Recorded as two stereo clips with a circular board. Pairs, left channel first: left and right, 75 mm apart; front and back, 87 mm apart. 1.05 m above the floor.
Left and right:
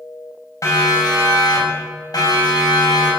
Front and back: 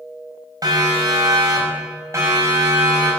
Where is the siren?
135° left, 6 m; by 3.1 s 115° left, 7 m.